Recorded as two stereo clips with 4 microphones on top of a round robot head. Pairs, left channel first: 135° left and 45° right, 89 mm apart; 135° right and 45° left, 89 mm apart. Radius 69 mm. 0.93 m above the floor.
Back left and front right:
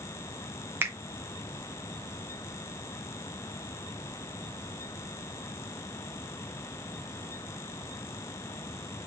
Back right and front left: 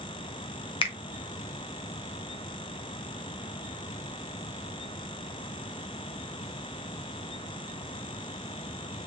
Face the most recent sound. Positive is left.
turn(degrees=-115)